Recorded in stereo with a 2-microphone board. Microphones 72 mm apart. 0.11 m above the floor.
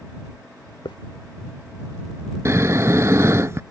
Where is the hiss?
80° left.